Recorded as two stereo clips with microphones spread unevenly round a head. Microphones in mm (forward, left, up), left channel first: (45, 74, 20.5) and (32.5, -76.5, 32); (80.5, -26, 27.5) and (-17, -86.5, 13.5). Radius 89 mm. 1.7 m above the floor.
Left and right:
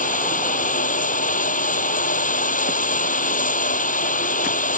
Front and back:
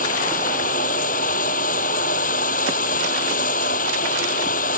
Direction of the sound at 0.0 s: 50° left.